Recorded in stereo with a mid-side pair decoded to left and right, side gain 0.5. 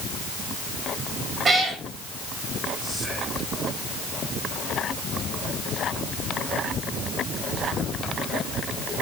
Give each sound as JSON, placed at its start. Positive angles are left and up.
{"t": 1.4, "sound": "a cat meowing", "azimuth_deg": -35, "distance_m": 4.0}
{"t": 2.8, "sound": "whispering", "azimuth_deg": 15, "distance_m": 8.0}